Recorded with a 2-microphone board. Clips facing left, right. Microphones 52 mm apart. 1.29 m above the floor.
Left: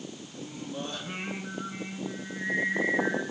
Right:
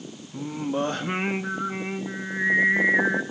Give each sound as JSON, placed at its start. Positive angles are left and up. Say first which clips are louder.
{"t": 0.3, "sound": "singing", "louder": "right 12 dB", "side_deg": -60, "distance_m": 1.0}